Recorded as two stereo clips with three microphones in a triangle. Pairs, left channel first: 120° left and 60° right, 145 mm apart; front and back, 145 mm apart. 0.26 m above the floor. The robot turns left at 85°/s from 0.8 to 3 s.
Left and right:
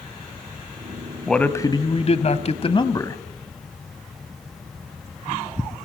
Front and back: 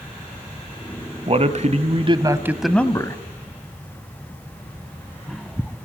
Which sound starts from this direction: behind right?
A man speaking, at 1.3 s.